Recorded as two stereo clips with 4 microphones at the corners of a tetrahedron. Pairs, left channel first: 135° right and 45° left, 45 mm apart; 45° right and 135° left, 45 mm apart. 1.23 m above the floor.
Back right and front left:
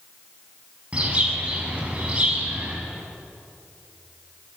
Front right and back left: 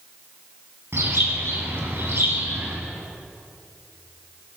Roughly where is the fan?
I don't hear a fan.